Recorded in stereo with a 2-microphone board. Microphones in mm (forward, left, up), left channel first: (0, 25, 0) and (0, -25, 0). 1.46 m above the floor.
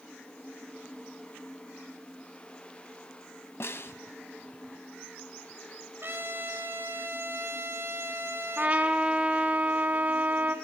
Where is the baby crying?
I don't hear a baby crying.